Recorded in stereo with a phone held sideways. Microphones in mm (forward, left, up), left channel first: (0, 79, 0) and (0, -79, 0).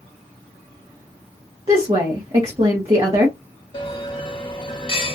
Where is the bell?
35° left (ahead or behind), 1.0 m.